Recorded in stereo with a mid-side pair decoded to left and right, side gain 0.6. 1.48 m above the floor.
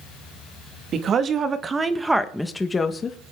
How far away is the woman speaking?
About 2.5 m.